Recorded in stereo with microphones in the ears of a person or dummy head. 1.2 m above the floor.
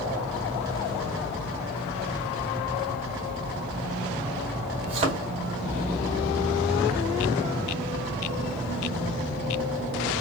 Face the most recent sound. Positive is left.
turn(degrees=-35)  # may be behind; listen again after turning